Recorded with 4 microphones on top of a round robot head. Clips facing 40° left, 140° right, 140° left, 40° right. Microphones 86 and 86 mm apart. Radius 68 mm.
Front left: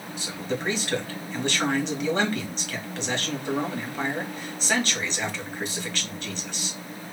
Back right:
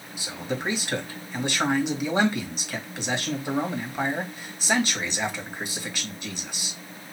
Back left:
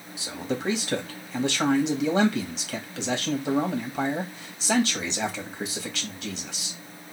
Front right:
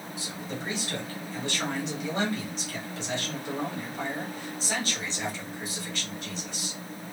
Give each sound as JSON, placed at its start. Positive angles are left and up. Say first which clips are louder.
{"t": 0.2, "sound": "a man speaking", "louder": "even, back left 8 dB", "azimuth_deg": 145, "distance_m": 1.9}